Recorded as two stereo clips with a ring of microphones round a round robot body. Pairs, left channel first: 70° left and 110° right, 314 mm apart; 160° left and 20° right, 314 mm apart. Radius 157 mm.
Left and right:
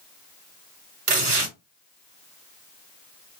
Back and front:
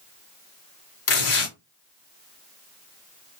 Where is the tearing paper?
165° right, 2.5 m.